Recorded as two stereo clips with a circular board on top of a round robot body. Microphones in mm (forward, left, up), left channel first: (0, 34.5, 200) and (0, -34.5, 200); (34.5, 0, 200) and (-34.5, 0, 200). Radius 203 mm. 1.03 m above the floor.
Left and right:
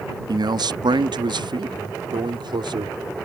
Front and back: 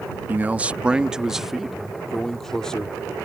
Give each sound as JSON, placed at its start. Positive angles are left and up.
{"t": 0.3, "sound": "a man speaking", "azimuth_deg": -115}